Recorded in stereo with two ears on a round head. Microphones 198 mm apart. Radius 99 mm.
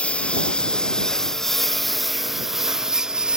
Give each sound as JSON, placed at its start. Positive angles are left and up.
{"t": 0.0, "sound": "a lawn mower", "side_deg": 5}